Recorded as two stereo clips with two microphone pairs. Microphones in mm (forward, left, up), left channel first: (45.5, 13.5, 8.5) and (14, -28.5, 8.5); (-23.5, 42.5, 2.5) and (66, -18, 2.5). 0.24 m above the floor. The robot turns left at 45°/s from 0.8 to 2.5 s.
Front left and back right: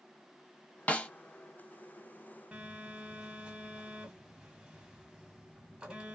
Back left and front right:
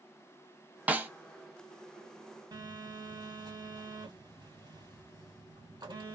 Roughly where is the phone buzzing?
Ahead right.